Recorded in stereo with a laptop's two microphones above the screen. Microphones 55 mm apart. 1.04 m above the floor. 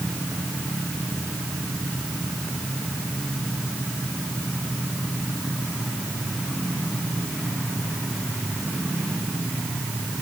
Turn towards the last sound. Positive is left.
No sound to turn to.